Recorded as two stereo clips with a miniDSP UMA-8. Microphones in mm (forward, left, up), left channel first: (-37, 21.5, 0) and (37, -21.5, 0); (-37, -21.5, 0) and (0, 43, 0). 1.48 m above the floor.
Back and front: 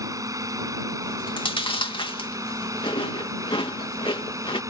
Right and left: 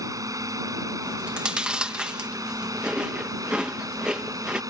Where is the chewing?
140° left.